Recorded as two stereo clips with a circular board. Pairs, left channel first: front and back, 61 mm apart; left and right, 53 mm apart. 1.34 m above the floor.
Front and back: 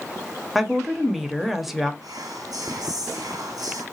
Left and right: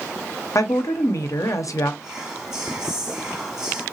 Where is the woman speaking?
95° left, 0.5 m.